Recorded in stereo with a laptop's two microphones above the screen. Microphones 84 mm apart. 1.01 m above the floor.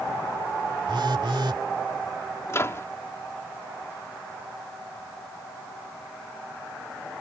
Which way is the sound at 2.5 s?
35° left (ahead or behind).